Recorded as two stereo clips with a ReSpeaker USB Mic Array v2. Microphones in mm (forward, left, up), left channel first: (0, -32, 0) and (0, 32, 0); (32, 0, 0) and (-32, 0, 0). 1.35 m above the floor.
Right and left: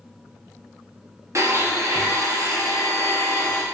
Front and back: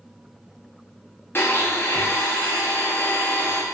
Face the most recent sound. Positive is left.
turn(degrees=50)